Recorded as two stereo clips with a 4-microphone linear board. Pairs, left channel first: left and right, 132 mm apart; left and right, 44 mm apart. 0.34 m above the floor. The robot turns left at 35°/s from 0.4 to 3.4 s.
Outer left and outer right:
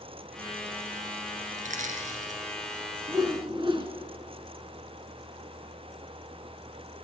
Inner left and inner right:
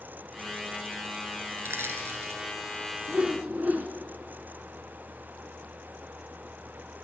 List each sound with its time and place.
1.6 s crushing: 70° right (ahead or behind), 3 m; by 2.4 s 75° right (ahead or behind), 3 m
3.1 s a whoosh: 30° right (ahead or behind), 1.6 m; by 3.9 s 40° right (ahead or behind), 1.6 m